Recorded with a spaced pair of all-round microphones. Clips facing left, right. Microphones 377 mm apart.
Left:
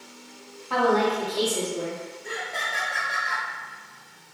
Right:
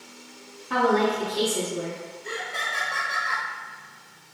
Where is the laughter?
10° right (ahead or behind), 0.6 m.